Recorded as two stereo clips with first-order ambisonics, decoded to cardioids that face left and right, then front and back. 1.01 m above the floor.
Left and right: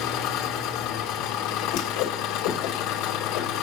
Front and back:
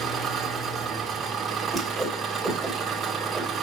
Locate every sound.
0.0 s an engine running: 110° left, 1.8 m
1.7 s a whoosh: 95° left, 3 m